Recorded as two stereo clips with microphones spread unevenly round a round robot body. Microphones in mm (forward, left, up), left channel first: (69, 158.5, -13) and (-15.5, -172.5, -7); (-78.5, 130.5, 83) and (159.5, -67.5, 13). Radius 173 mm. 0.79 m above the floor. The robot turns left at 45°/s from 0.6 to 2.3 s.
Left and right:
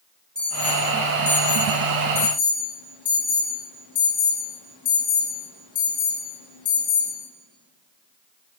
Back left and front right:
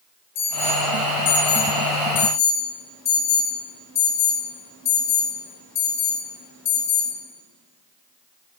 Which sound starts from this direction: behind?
An alarm, at 0.3 s.